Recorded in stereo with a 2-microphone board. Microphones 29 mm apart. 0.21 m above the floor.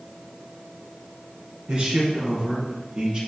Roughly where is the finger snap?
I don't hear a finger snap.